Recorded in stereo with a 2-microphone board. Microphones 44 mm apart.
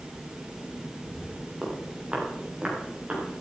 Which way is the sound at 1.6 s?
20° right (ahead or behind).